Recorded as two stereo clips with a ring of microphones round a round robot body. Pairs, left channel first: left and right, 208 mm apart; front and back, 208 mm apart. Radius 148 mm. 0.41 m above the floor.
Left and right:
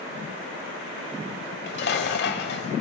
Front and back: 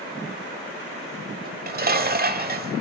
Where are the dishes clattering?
140° left, 1.2 m.